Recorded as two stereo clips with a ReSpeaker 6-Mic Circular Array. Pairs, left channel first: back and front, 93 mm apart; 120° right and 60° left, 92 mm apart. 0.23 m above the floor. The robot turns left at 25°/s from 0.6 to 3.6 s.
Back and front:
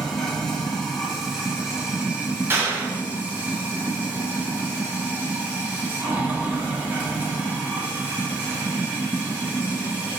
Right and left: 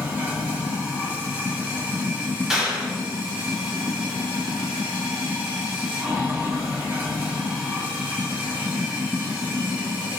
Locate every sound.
0.0 s running water: 105° left, 1.3 m; by 10.2 s 30° left, 1.3 m
2.5 s a clap: 15° right, 1.0 m; by 3.0 s 30° right, 1.0 m